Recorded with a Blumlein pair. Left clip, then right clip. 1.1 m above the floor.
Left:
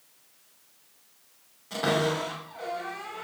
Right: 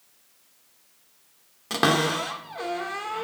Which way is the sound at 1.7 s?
55° right.